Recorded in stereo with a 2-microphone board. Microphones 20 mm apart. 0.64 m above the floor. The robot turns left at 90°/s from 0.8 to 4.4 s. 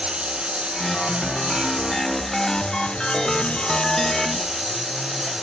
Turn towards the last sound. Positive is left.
turn(degrees=-15)